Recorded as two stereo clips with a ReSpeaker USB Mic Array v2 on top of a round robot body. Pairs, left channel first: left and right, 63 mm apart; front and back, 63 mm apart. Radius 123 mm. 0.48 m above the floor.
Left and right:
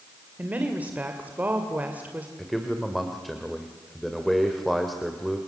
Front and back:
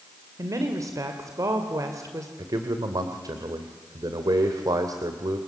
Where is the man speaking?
Straight behind, 2 m.